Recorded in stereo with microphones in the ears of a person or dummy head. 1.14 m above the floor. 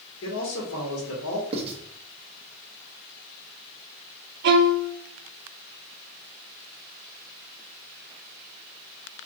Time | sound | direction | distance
0.2 | a man speaking | 65° left (ahead or behind) | 2 m
1.5 | writing | 35° right (ahead or behind) | 1.0 m
4.4 | a violin | 65° right (ahead or behind) | 0.6 m